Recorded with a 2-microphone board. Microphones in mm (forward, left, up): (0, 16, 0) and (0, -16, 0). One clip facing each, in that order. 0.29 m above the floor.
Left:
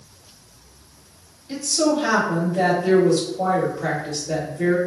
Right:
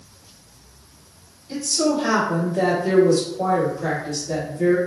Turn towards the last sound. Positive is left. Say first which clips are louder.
# left 1 dB
turn(degrees=40)  # may be behind; listen again after turning